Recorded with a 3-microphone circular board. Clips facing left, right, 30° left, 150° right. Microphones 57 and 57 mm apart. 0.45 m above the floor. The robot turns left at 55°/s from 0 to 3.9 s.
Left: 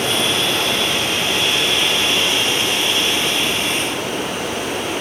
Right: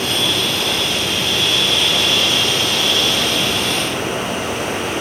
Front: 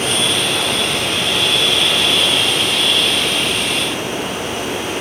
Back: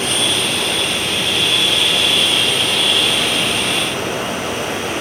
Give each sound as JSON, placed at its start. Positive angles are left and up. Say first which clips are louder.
{"t": 0.0, "sound": "running water", "louder": "left 1 dB, front 1 dB", "azimuth_deg": 95, "distance_m": 2.0}